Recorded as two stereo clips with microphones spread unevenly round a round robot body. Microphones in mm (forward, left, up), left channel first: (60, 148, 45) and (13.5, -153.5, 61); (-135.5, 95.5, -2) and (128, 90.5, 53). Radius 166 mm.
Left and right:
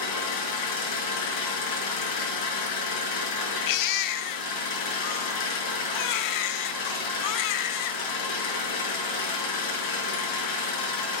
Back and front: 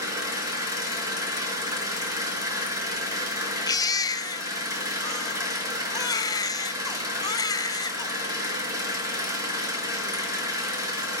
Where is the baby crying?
105° left, 0.6 m.